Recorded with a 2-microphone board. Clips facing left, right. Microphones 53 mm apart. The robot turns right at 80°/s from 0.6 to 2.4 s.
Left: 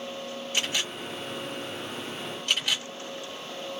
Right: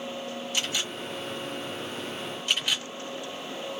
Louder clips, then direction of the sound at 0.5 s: Left 2 dB; 35° left (ahead or behind).